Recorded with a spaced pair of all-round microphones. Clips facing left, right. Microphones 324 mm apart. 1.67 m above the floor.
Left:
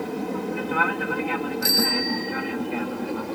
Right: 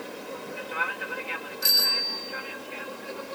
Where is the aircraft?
65° left (ahead or behind); by 3.4 s 70° left (ahead or behind).